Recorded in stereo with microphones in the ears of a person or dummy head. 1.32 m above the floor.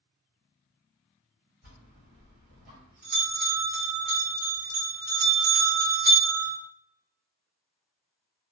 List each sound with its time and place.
1.6 s a bell: 50° right (ahead or behind), 1.4 m